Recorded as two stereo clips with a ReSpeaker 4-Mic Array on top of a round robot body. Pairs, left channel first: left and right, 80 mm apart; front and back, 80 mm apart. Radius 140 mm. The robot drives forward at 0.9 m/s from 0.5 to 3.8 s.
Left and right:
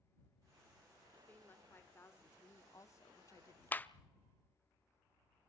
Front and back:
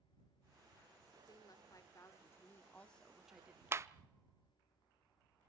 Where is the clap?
140° left, 0.8 m; by 3.9 s 150° left, 0.8 m.